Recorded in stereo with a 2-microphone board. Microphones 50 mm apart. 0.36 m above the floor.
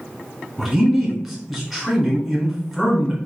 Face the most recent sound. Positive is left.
turn(degrees=0)  # may be behind; listen again after turning